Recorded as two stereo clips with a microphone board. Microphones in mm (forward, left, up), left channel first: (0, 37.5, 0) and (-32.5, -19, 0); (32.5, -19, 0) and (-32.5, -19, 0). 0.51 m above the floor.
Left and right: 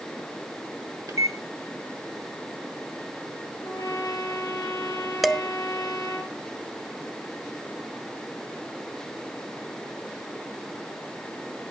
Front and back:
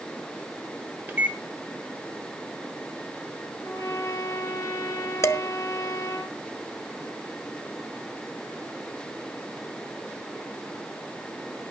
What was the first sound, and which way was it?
A microwave, 125° right.